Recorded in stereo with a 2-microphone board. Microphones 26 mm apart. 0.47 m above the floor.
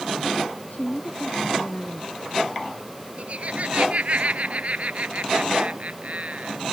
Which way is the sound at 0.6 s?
75° left (ahead or behind).